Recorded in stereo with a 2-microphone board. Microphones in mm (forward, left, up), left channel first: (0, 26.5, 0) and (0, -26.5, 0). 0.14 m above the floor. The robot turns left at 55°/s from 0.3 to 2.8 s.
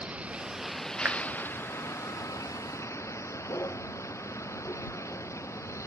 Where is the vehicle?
155° right; by 5.9 s 65° left.